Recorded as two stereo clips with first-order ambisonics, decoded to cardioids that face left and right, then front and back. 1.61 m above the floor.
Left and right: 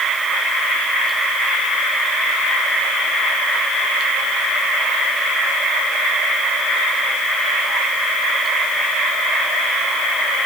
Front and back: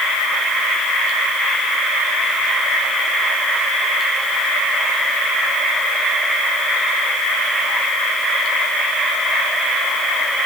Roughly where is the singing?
I don't hear singing.